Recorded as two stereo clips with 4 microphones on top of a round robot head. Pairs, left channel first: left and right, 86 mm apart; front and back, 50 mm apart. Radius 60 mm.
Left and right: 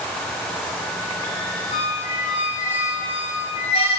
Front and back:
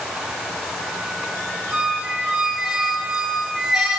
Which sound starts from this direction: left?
A squeak, at 1.7 s.